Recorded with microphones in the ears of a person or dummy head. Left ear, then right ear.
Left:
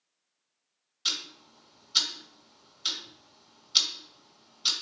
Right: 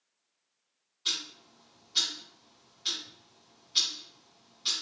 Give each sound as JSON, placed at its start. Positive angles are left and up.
{"t": 1.1, "sound": "ticking", "side_deg": 40, "distance_m": 2.0}